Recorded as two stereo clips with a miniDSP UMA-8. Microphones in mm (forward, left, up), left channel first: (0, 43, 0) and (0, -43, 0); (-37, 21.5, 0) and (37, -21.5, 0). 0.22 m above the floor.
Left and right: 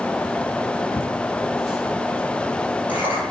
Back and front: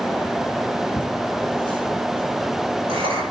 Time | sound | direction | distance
1.0 | laughter | straight ahead | 6.5 m